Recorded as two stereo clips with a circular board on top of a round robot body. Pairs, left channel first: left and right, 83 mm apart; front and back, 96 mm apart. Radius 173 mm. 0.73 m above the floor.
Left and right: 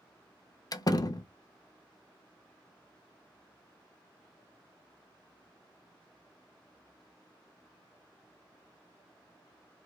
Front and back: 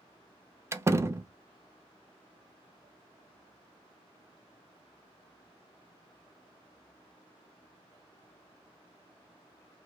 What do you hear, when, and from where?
0.7 s a door slam: 120° left, 0.5 m